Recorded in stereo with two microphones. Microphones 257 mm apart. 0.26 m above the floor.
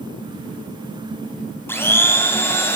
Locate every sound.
1.7 s a blender: 10° left (ahead or behind), 1.9 m